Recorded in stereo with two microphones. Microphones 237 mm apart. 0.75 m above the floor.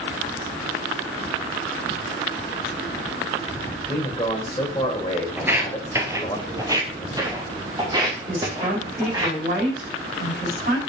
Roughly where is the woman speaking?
Right.